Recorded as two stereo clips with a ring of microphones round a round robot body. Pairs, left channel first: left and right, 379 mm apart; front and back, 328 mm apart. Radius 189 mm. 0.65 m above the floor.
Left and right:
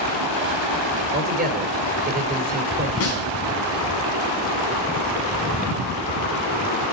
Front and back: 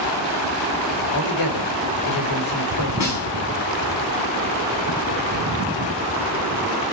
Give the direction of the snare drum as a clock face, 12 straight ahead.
11 o'clock.